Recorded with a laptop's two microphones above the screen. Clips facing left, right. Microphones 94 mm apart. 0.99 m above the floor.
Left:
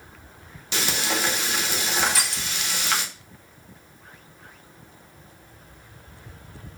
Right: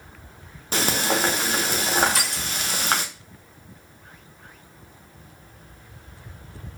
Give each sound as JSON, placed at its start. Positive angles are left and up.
{"t": 0.7, "sound": "frying", "side_deg": -40, "distance_m": 0.7}
{"t": 2.0, "sound": "crushing", "side_deg": -50, "distance_m": 1.8}